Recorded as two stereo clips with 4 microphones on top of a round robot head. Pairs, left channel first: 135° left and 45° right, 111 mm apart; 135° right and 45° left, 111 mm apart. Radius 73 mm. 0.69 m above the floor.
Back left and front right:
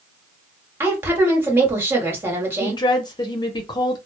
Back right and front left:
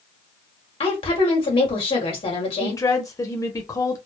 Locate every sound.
0.8 s a woman speaking: 110° right, 1.6 m
2.6 s a woman speaking: 170° left, 0.8 m